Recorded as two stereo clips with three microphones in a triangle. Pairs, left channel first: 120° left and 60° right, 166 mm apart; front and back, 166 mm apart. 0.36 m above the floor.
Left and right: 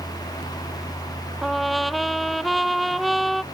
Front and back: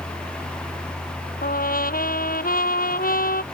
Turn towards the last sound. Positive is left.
turn(degrees=30)